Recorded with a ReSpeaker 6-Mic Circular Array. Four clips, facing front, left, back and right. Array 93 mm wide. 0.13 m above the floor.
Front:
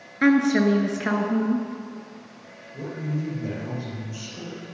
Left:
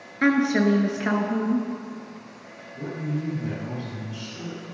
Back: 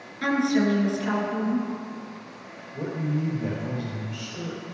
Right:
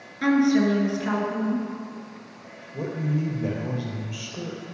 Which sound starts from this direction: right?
A man speaking, at 2.7 s.